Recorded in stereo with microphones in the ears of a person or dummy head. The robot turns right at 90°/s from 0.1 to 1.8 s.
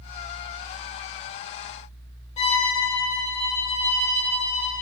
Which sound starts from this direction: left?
A violin, at 2.4 s.